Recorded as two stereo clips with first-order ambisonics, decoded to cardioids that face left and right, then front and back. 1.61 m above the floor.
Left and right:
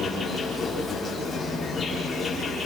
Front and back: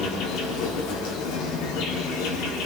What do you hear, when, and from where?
0.0 s an insect: 10° left, 5 m